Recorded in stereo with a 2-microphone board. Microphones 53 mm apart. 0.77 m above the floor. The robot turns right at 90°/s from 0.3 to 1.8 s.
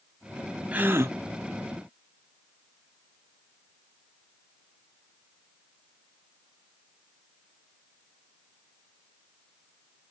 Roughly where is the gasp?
Behind right.